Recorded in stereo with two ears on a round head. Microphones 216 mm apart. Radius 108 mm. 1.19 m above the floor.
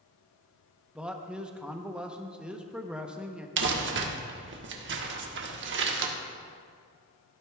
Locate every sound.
0.9 s a man speaking: 5° right (ahead or behind), 0.8 m
3.6 s crumpling: 50° right (ahead or behind), 1.2 m